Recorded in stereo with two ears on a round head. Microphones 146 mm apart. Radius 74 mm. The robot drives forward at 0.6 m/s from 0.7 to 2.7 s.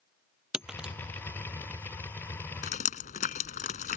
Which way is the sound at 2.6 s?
55° left (ahead or behind).